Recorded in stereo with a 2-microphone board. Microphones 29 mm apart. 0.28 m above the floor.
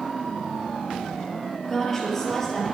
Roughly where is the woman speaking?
Centre.